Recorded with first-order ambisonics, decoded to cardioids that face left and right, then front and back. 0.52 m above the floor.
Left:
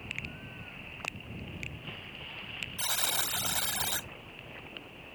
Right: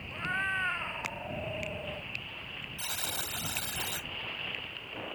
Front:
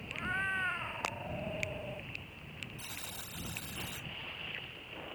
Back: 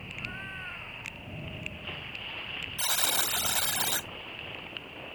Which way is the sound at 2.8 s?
165° left.